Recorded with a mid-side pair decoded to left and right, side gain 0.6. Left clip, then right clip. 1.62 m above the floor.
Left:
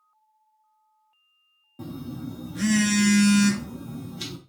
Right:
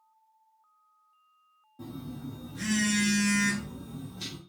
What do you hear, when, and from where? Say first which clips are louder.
1.8 s a phone buzzing: left 5 dB; 45° left, 0.6 m